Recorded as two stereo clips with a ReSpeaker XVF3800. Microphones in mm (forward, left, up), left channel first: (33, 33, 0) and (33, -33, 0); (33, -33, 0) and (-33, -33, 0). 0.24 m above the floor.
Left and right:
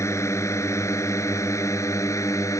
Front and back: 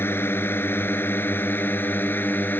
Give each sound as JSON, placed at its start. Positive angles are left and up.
{"t": 0.0, "sound": "a drone", "azimuth_deg": 50}